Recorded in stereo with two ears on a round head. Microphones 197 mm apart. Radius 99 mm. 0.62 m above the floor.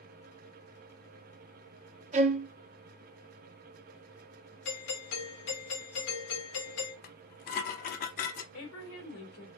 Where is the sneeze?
No sneeze in this recording.